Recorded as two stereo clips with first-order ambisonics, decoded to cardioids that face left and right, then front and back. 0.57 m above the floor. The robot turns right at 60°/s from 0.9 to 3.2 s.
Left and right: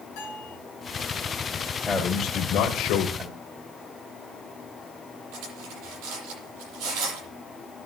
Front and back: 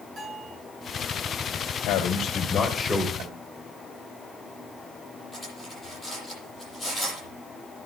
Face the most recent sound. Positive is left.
turn(degrees=-75)